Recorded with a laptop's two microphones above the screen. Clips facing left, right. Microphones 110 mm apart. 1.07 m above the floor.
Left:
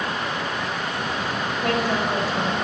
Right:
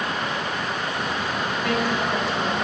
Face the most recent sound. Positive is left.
turn(degrees=45)  # may be behind; listen again after turning